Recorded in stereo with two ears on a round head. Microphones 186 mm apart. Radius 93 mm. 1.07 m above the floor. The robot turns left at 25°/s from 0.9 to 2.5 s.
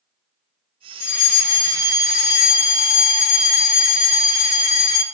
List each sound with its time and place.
1.0 s a fire alarm: 95° left, 2.5 m; by 5.0 s 55° left, 2.5 m